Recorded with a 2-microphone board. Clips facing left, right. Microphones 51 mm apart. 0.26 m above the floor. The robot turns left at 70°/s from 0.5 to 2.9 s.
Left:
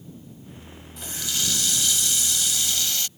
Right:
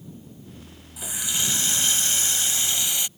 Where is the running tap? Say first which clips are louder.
Right 1 dB; 15° right; by 3.1 s 150° right.